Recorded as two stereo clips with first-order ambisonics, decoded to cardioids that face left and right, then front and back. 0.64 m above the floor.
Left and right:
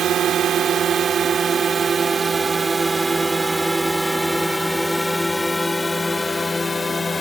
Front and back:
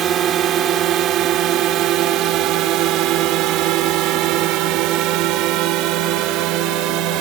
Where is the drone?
135° right; by 7.2 s 165° left.